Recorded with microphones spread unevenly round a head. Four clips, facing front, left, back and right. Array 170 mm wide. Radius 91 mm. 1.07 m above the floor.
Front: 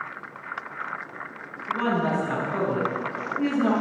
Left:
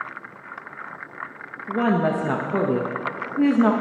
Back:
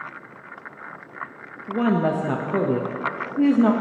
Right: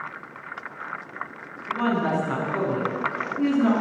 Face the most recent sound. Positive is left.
turn(degrees=145)